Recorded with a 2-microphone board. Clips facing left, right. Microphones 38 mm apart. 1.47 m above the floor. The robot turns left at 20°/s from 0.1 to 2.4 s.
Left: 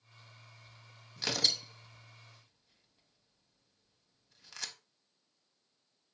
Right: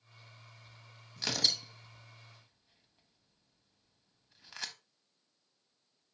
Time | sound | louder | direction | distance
1.2 | tearing paper | even | 5° left (ahead or behind) | 0.9 m